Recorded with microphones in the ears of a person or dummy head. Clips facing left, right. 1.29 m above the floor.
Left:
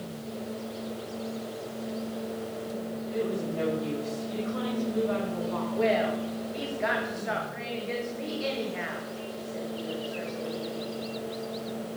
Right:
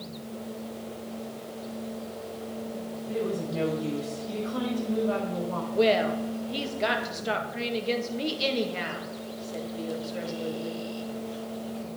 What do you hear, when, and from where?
3.1 s a woman speaking: 35° right (ahead or behind), 4.5 m
5.7 s a woman speaking: 45° right (ahead or behind), 1.8 m